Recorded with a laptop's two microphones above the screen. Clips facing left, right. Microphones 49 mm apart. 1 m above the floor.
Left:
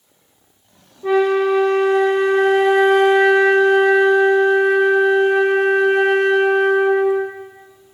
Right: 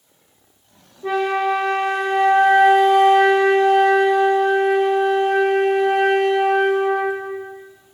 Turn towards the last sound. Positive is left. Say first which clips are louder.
# left 4 dB
turn(degrees=0)  # may be behind; listen again after turning